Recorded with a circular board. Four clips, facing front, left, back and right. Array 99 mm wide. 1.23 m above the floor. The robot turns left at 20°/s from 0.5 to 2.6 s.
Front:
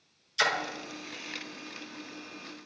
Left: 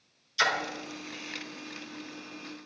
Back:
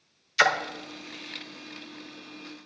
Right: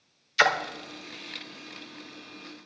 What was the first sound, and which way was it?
A splash, 130° right.